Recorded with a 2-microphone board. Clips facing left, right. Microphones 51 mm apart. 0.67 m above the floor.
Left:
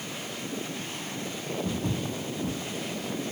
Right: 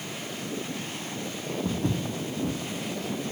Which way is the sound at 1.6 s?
30° right (ahead or behind).